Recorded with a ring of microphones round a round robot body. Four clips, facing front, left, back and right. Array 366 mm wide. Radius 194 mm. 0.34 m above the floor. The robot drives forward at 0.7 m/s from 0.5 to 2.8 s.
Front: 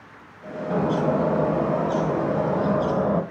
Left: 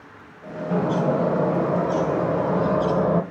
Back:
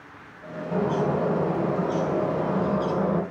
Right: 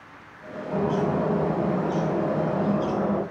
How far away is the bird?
About 2 m.